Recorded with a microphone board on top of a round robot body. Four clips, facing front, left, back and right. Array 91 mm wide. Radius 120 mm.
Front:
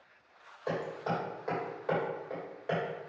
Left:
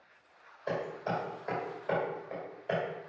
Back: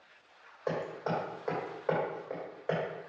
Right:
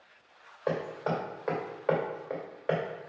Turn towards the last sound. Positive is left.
turn(degrees=-115)